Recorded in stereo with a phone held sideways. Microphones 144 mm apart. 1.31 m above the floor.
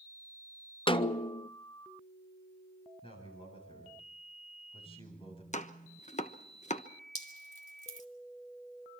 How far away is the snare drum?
About 0.7 m.